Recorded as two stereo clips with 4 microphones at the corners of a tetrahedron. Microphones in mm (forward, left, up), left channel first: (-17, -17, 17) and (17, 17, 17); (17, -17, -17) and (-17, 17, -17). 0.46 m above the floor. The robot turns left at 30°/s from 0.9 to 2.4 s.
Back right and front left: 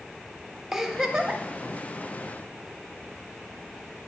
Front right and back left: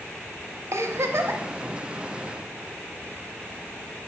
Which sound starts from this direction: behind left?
A giggle, at 0.7 s.